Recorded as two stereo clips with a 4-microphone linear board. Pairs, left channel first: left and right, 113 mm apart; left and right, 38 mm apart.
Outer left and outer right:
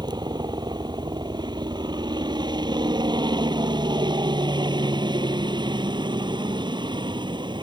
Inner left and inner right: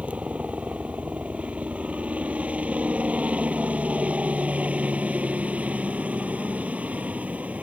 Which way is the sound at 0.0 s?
40° right (ahead or behind).